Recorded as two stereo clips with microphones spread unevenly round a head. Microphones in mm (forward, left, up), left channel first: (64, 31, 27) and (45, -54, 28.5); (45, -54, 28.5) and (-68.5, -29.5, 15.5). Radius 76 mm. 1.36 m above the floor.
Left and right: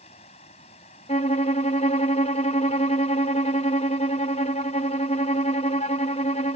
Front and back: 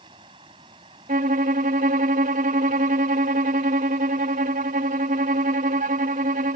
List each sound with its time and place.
0.0 s running water: 105° left
1.1 s a violin: 120° left